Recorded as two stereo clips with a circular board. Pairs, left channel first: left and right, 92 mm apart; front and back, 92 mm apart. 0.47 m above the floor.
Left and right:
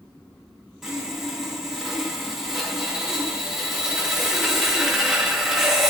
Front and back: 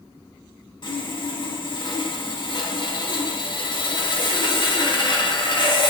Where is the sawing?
5° right, 0.6 m.